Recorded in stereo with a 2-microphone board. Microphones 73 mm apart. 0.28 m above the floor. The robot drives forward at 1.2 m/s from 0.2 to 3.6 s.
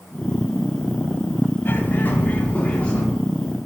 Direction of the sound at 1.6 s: 30° left (ahead or behind).